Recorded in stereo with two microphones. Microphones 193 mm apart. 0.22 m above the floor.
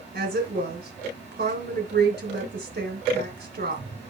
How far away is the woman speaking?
About 3 m.